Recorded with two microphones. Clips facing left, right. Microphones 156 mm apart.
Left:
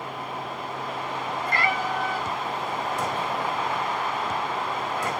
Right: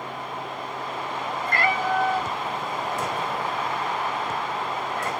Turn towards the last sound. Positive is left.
turn(degrees=15)  # may be behind; listen again after turning